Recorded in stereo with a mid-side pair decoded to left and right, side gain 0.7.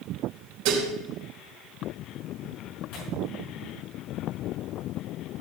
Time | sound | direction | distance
0.7 | dishes clattering | 65° right | 4 m
2.9 | tearing paper | 65° left | 6.5 m